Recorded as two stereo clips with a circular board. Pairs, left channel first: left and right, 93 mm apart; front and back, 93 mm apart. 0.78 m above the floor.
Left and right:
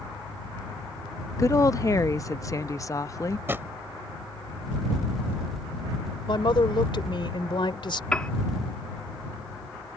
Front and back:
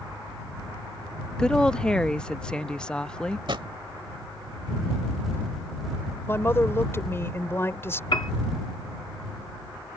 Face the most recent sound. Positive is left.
turn(degrees=10)